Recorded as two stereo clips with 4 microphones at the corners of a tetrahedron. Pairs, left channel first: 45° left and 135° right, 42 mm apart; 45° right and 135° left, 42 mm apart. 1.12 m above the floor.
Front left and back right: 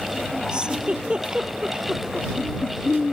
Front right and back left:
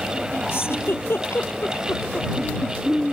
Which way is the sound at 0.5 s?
65° right.